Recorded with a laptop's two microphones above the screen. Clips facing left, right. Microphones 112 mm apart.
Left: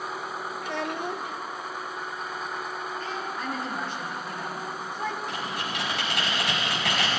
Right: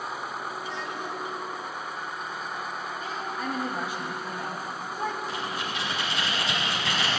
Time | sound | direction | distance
0.6 | a child speaking | 60° left (ahead or behind) | 0.7 m
3.0 | a woman speaking | 10° right (ahead or behind) | 1.5 m
5.3 | typing on a keyboard | 65° left (ahead or behind) | 4.5 m